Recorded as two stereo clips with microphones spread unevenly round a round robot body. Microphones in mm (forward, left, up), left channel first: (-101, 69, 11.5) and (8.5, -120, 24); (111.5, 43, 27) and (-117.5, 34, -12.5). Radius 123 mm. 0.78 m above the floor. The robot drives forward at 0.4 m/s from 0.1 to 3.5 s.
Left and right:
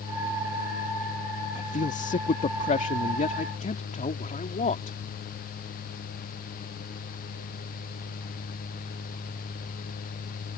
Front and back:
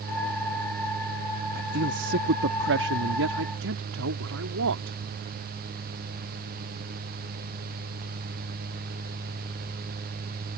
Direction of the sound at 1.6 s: 165° left.